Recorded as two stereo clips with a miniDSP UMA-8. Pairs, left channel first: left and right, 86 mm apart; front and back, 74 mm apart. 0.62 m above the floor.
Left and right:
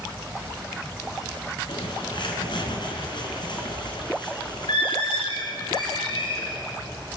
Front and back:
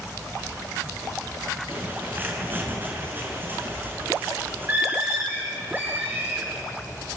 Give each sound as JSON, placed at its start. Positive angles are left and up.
{"t": 1.7, "sound": "a bird", "azimuth_deg": 115, "distance_m": 4.5}